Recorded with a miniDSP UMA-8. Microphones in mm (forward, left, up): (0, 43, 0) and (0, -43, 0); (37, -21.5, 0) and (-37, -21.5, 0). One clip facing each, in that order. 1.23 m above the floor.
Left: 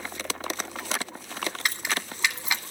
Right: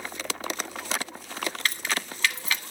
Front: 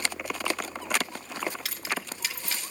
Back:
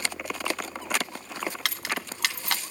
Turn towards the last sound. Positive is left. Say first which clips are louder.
# even, back 2 dB
turn(degrees=165)